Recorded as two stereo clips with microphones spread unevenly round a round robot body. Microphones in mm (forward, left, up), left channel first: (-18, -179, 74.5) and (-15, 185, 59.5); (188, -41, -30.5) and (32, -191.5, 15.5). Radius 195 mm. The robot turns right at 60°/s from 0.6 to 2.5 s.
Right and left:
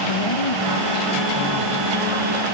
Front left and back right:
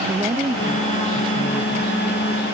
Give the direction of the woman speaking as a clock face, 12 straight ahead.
2 o'clock.